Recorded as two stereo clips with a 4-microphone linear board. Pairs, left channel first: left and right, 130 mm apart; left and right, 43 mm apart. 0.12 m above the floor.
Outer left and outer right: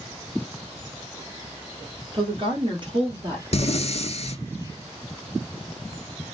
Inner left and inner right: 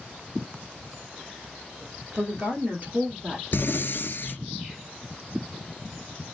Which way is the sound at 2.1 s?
40° right (ahead or behind).